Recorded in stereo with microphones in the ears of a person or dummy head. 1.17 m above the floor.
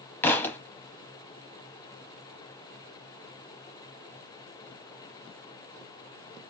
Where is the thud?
15° left (ahead or behind), 0.7 m.